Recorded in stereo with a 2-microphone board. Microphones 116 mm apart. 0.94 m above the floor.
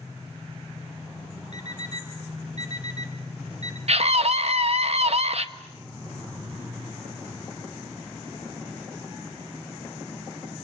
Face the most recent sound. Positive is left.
turn(degrees=-60)  # may be behind; listen again after turning